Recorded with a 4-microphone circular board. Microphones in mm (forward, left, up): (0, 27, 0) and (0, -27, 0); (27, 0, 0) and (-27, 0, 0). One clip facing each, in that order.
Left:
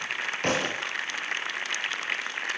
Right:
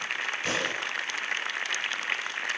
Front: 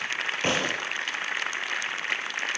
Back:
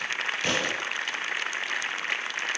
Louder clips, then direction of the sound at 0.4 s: Left 4 dB, front 2 dB; 60° left.